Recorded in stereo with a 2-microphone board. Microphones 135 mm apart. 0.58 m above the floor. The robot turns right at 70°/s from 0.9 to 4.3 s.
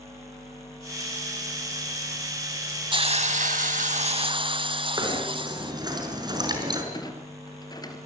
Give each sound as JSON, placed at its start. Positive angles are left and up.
{"t": 2.9, "sound": "a hiss", "azimuth_deg": -140, "distance_m": 0.9}
{"t": 5.0, "sound": "knocking", "side_deg": -30, "distance_m": 5.0}
{"t": 6.9, "sound": "a clunk", "side_deg": 30, "distance_m": 3.5}